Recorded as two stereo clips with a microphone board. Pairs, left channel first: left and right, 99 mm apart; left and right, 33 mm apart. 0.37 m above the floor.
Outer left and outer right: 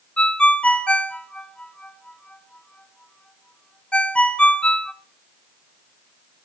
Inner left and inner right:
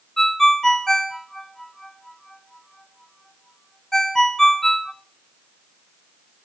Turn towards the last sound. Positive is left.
turn(degrees=10)  # may be behind; listen again after turning